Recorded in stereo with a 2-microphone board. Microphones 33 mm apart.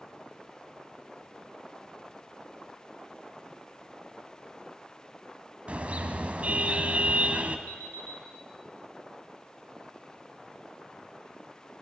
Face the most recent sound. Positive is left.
turn(degrees=55)  # may be behind; listen again after turning